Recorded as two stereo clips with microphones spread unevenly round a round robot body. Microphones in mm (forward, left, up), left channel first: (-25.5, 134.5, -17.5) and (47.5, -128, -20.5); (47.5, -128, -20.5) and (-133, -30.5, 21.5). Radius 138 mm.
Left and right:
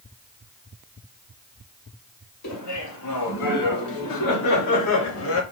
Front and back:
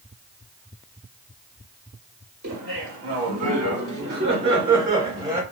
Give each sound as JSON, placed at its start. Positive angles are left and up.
{"t": 2.4, "sound": "laughter", "azimuth_deg": 130, "distance_m": 3.0}